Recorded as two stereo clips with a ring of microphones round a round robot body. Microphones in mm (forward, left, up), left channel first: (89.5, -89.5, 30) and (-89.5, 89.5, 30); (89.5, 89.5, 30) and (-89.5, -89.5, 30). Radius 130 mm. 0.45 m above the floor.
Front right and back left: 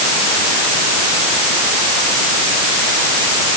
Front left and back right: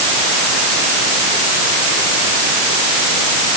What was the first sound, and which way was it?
Only background noise.